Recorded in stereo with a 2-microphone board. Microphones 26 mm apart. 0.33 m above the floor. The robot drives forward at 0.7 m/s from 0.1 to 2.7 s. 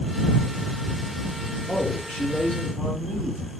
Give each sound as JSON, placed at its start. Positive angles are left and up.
{"t": 1.7, "sound": "a man speaking", "side_deg": 65, "distance_m": 5.5}